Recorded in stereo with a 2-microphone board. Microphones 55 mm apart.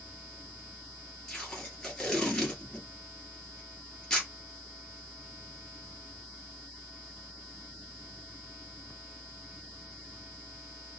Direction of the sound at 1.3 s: 10° left (ahead or behind).